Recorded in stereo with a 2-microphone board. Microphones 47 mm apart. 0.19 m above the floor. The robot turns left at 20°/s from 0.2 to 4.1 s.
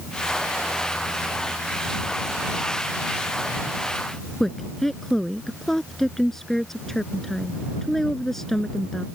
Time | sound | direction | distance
4.4 | a woman speaking | 5° left (ahead or behind) | ?